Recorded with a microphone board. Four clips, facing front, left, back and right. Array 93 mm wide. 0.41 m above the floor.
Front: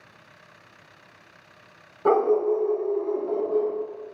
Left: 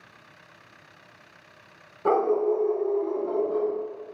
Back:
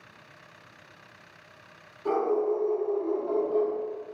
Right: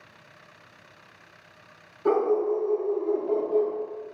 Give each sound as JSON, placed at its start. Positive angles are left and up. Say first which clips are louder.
{"t": 2.0, "sound": "a dog barking", "louder": "left 1 dB, front 6 dB", "azimuth_deg": 30, "distance_m": 0.6}